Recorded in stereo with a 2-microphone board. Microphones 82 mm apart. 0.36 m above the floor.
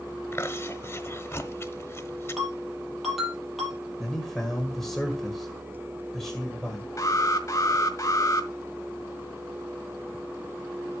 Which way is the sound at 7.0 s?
40° left (ahead or behind).